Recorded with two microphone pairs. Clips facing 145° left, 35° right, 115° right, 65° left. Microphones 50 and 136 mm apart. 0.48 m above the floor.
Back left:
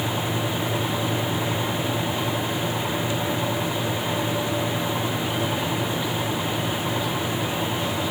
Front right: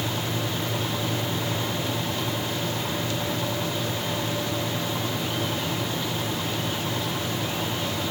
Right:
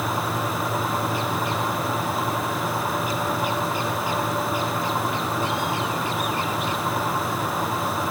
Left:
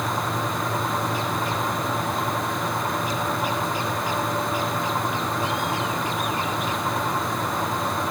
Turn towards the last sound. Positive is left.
No sound to turn to.